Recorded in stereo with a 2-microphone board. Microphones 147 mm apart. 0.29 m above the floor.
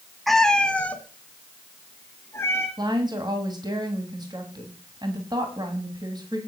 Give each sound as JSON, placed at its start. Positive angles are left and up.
{"t": 0.3, "sound": "a cat meowing", "side_deg": 0, "distance_m": 0.9}
{"t": 2.8, "sound": "a woman speaking", "side_deg": -30, "distance_m": 2.5}